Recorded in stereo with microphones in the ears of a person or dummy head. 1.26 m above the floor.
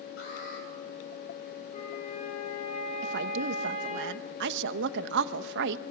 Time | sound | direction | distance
0.2 | an alarm | 75° left (ahead or behind) | 10 m
1.7 | a flute | 40° left (ahead or behind) | 6.5 m
3.0 | a woman speaking | 65° right (ahead or behind) | 1.1 m